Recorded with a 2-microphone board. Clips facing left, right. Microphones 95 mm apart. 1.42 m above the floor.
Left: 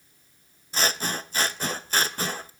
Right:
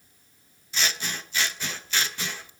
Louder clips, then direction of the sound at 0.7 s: Left 4 dB; 40° left (ahead or behind).